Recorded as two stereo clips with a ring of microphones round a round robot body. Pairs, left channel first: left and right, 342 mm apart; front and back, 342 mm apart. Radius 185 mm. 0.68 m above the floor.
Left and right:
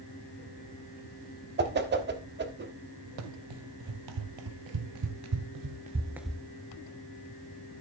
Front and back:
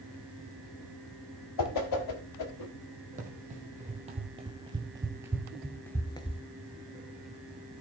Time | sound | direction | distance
1.6 | a whoosh | 30° right | 1.4 m
3.2 | running footsteps | 110° right | 1.7 m